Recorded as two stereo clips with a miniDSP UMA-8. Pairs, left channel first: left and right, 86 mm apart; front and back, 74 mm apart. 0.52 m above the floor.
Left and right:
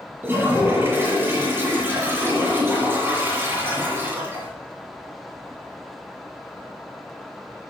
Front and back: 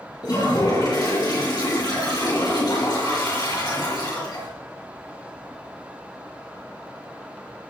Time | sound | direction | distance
0.2 | a toilet flushing | 25° right | 5 m